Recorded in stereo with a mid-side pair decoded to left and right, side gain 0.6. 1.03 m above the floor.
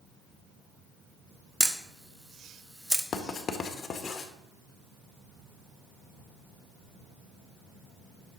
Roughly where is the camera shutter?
Ahead.